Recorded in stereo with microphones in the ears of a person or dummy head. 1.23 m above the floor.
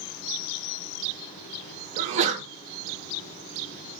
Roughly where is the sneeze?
Right.